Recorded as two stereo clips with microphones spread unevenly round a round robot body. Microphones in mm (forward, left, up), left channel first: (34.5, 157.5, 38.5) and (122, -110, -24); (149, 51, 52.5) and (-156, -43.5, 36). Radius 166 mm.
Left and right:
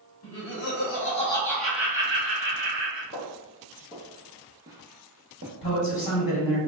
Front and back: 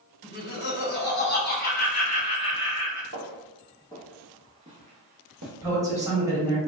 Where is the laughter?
75° left, 1.2 m; by 3.0 s 60° right, 1.3 m.